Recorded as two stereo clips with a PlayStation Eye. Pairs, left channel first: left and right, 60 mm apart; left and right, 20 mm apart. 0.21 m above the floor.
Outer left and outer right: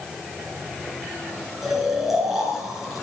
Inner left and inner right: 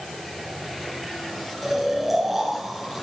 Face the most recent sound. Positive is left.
turn(degrees=-5)  # may be behind; listen again after turning